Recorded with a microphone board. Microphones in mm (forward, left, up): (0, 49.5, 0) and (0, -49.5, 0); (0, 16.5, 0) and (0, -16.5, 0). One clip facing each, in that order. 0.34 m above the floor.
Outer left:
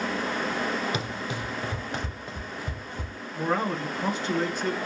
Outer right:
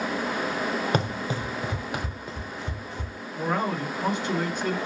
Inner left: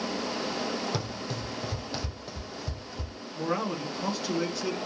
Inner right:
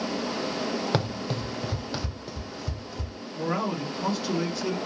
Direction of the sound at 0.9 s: 50° right (ahead or behind).